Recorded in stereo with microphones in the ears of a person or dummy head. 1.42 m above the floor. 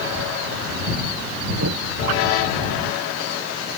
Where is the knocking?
90° right.